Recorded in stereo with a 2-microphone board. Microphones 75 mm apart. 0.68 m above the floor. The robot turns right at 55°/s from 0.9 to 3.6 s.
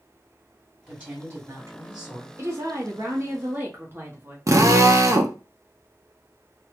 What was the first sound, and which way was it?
A woman speaking, 165° right.